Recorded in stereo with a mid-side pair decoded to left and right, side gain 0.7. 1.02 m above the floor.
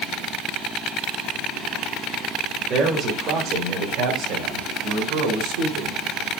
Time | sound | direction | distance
2.7 | a man speaking | 35° right | 3 m